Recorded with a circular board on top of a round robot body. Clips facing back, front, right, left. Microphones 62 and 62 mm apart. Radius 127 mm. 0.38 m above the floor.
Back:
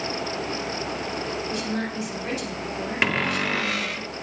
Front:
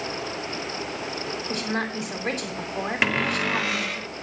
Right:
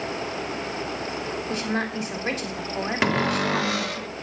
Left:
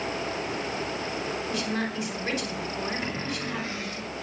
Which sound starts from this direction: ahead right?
A woman speaking, at 1.5 s.